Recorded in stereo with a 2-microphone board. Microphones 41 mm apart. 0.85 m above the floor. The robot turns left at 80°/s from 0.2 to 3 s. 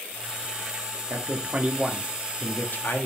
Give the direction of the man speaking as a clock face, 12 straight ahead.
4 o'clock.